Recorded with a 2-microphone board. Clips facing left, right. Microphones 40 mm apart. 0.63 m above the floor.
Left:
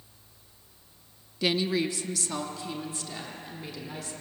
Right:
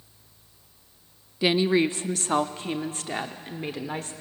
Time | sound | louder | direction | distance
1.4 | a woman speaking | right 5 dB | 15° right (ahead or behind) | 0.5 m